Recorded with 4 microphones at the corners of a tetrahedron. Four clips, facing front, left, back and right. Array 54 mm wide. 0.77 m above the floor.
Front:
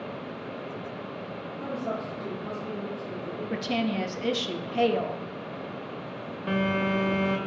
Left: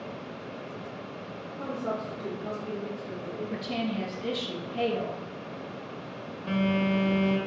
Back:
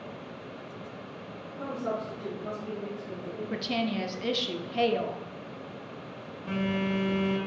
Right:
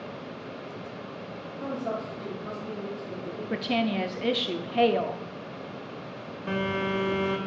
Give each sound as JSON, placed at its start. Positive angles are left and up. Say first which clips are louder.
{"t": 1.6, "sound": "a woman speaking", "louder": "right 1 dB, even", "azimuth_deg": 125, "distance_m": 2.0}
{"t": 3.5, "sound": "a woman speaking", "louder": "right 6 dB, front 2 dB", "azimuth_deg": -75, "distance_m": 0.7}
{"t": 6.5, "sound": "a phone buzzing", "louder": "left 2 dB, front 4 dB", "azimuth_deg": -20, "distance_m": 1.5}